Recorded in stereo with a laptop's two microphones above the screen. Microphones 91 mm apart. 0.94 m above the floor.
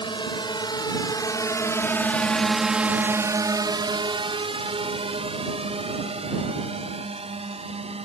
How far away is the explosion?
I don't hear an explosion.